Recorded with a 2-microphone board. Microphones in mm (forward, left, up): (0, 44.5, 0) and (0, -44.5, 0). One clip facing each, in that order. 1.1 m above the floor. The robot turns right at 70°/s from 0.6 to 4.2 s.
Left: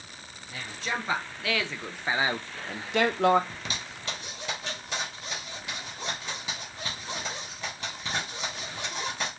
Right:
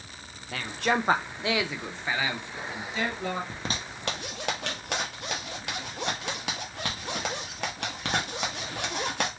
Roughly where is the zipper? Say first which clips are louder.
Right 3 dB; right.